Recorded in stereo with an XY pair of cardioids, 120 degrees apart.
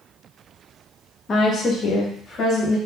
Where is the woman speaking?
40° left, 0.8 m; by 2.8 s 45° left, 1.9 m.